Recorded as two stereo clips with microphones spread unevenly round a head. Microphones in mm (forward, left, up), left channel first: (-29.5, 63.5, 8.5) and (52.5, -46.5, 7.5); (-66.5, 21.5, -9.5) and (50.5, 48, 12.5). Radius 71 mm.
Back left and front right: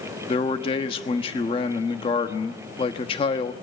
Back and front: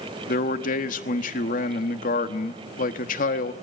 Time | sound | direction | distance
0.3 | a man speaking | 175° right | 1.3 m